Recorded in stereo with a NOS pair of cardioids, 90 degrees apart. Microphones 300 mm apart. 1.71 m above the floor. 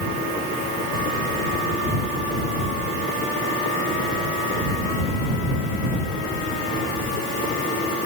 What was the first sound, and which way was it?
Only background noise.